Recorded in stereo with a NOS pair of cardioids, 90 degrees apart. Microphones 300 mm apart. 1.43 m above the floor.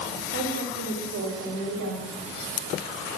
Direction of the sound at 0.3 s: 50° right.